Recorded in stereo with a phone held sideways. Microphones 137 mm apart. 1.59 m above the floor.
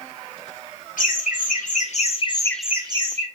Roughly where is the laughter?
Left.